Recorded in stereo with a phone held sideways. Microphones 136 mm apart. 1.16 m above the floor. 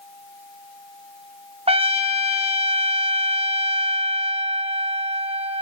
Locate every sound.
1.7 s a trumpet: 45° right (ahead or behind), 1.2 m